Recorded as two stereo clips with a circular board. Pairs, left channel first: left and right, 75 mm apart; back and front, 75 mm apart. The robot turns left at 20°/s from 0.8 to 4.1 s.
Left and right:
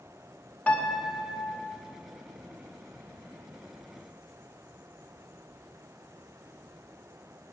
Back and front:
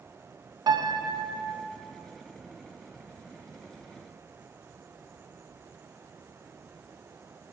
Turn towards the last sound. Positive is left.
turn(degrees=-45)